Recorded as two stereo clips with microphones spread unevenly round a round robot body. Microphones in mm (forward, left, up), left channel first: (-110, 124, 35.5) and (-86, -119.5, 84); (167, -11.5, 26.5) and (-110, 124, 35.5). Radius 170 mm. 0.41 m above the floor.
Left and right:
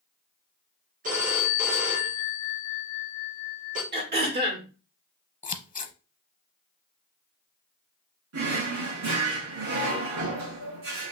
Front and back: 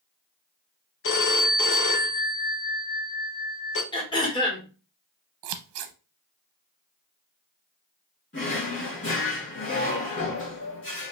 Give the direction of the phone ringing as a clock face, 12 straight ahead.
1 o'clock.